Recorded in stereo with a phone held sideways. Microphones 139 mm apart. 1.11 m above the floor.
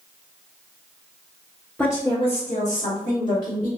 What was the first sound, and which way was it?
A woman speaking, 10° left (ahead or behind).